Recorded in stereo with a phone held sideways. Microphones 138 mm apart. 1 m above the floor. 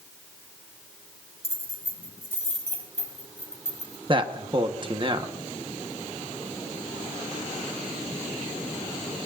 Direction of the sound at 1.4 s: 45° right (ahead or behind).